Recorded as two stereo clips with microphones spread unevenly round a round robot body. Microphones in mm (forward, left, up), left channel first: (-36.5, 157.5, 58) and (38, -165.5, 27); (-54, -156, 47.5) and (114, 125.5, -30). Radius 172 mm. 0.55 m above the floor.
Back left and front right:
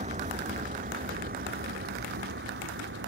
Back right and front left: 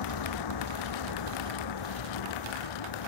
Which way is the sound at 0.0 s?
150° right.